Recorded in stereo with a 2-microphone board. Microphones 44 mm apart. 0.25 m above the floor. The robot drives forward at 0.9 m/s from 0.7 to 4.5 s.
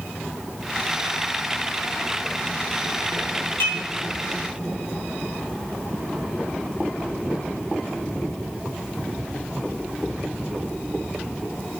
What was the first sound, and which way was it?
Dishes clattering, 60° left (ahead or behind).